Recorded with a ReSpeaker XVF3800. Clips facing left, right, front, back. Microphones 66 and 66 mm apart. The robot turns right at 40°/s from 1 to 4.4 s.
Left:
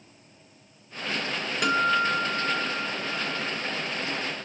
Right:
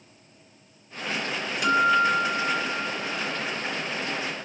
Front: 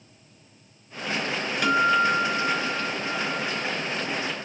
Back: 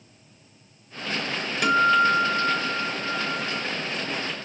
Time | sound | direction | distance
1.6 | a guitar | 105° left | 2.5 m